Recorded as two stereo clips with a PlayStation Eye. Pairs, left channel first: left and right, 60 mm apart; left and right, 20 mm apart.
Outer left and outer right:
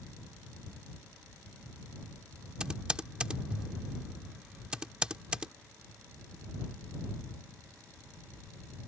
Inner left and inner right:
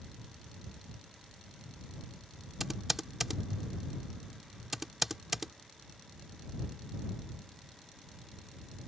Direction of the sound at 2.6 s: 15° right (ahead or behind).